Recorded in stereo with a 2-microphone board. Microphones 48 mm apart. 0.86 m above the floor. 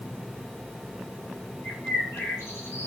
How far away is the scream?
I don't hear a scream.